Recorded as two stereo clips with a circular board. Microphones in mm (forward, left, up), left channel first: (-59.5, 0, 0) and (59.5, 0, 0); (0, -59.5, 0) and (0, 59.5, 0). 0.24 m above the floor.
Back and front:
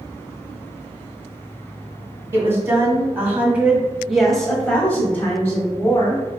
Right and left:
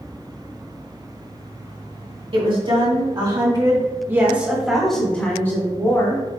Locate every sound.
2.3 s a woman speaking: 65° left, 2.0 m; by 6.3 s 130° right, 1.6 m